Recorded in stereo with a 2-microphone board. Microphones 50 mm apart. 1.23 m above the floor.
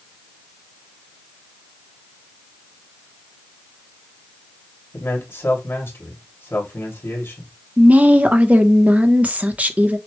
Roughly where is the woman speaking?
Right.